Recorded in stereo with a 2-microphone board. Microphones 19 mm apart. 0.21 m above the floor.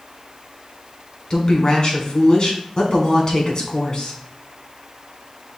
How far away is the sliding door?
I don't hear a sliding door.